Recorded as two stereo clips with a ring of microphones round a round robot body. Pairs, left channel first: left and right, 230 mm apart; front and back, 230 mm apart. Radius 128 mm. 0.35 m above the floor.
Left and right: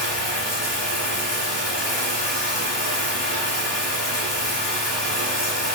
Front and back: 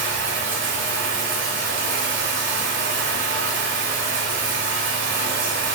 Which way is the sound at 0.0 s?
145° left.